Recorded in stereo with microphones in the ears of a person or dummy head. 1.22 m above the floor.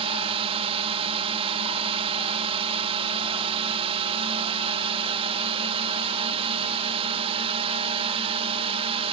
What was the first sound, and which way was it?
A drone, 30° right (ahead or behind).